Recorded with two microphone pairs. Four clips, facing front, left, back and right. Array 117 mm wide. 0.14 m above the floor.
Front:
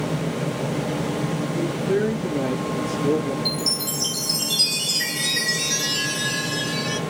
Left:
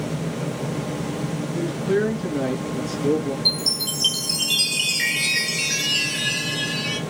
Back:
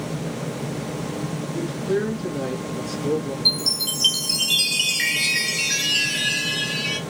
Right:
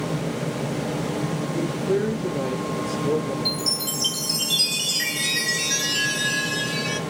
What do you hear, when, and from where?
1.5 s a man speaking: 95° left, 1.8 m
3.5 s a chime: 150° left, 1.8 m